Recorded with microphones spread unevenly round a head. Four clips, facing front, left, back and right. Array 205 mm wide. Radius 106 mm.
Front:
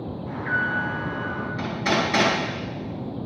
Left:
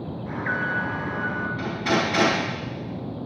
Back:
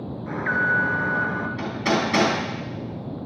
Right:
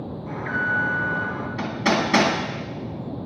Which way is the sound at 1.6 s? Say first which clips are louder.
Right 3 dB, even; 100° right.